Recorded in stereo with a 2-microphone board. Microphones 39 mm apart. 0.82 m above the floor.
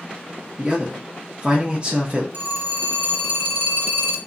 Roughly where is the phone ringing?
Right.